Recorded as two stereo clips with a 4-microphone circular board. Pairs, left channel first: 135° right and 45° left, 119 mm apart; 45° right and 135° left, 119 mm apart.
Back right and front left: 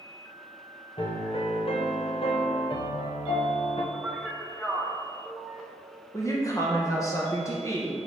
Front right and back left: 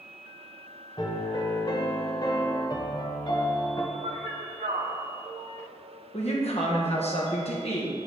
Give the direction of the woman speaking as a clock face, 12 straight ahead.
2 o'clock.